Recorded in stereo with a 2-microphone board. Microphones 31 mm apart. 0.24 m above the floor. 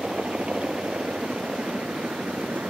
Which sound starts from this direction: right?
A helicopter, at 0.0 s.